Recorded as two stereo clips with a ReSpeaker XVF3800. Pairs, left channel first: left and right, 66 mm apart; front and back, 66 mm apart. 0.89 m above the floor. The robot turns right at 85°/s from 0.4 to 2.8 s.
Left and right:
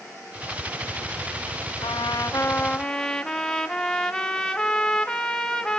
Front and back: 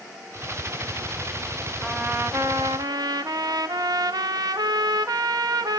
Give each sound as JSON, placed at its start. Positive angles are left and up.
{"t": 1.8, "sound": "a trumpet", "azimuth_deg": 85, "distance_m": 0.6}